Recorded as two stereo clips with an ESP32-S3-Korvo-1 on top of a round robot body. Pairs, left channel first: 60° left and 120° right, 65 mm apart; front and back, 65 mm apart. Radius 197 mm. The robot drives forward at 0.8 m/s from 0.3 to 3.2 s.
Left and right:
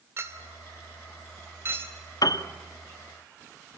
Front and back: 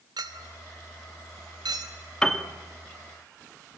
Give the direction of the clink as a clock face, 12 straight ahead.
6 o'clock.